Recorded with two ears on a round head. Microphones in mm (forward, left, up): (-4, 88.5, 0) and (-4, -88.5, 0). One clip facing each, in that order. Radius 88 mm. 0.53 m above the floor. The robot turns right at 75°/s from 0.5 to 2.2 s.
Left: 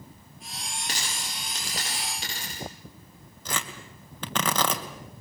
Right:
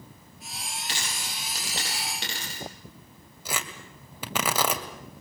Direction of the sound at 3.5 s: 10° right (ahead or behind).